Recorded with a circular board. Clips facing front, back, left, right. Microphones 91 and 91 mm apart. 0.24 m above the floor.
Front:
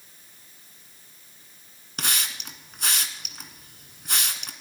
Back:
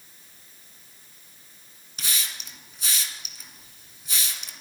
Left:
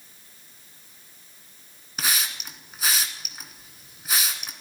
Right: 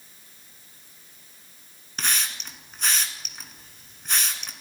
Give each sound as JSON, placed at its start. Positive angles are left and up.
{"t": 2.0, "sound": "a hiss", "azimuth_deg": 10, "distance_m": 1.6}